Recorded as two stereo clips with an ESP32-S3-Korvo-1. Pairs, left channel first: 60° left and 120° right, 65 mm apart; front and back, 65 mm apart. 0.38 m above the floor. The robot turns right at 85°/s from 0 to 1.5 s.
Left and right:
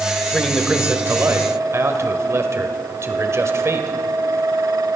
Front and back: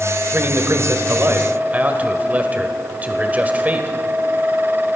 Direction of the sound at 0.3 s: 135° left.